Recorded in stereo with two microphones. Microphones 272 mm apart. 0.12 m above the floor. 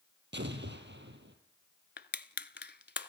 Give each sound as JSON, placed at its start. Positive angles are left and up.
{"t": 0.3, "sound": "an explosion", "side_deg": -40, "distance_m": 2.5}
{"t": 2.0, "sound": "crushing", "side_deg": 40, "distance_m": 0.7}